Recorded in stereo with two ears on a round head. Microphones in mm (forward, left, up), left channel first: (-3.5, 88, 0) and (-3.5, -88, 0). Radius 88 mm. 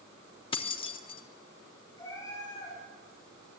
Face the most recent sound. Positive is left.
turn(degrees=15)  # may be behind; listen again after turning